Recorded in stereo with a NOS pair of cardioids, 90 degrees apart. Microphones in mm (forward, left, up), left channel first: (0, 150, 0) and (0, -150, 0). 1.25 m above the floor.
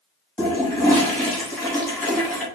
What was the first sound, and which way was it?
A toilet flushing, 5° left.